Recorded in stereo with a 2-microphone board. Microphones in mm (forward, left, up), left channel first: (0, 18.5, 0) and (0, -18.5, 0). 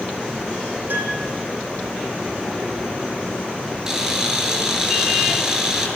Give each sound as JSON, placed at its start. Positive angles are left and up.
{"t": 0.9, "sound": "a piano", "side_deg": -65, "distance_m": 8.0}
{"t": 3.9, "sound": "a camera shutter", "side_deg": -15, "distance_m": 6.5}